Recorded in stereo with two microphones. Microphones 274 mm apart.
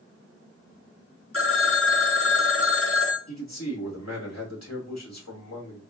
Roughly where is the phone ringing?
Left.